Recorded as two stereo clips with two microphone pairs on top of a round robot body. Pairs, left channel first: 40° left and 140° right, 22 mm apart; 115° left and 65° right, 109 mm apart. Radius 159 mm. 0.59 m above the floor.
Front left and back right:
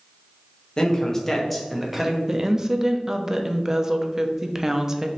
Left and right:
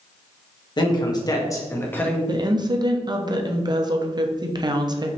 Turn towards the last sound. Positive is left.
turn(degrees=-95)